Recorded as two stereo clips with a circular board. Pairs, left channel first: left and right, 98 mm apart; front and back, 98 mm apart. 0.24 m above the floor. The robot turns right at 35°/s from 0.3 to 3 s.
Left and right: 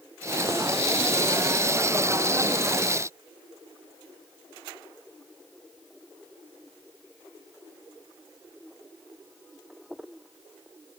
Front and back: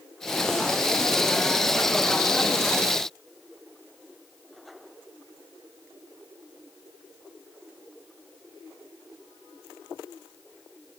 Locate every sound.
Only background noise.